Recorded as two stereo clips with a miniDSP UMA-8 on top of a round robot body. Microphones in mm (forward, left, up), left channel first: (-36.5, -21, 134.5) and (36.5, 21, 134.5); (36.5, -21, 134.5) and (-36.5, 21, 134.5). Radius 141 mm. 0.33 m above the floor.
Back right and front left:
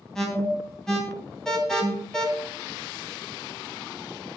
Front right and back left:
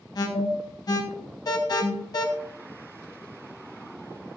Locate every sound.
0.1 s an alarm: 65° right, 3 m